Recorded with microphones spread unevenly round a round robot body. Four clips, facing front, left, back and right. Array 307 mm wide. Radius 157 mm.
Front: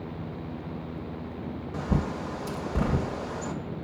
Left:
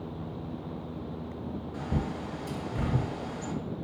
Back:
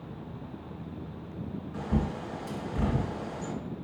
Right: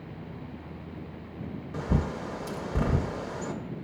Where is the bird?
45° right, 0.5 m.